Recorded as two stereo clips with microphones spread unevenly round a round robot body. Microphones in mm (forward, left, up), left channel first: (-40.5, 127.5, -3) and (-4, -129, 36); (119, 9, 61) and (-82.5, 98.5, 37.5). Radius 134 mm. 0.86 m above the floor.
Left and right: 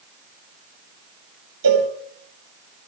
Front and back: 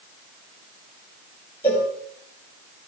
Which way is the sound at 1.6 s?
105° right.